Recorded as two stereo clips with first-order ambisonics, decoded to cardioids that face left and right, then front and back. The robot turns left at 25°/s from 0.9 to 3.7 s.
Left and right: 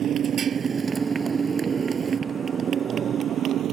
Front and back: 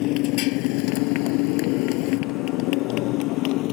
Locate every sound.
0.0 s a motorcycle: 30° right; by 3.7 s 35° right